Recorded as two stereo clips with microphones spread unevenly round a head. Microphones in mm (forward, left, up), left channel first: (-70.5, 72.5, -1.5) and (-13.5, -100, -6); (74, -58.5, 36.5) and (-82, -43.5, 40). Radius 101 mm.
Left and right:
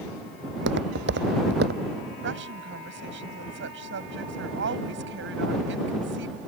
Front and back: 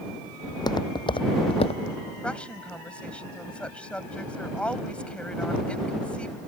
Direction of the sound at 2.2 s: 90° right.